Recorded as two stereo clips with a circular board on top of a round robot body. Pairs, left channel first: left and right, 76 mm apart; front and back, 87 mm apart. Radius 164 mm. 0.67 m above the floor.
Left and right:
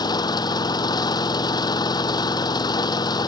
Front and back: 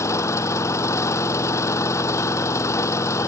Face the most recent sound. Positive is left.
turn(degrees=60)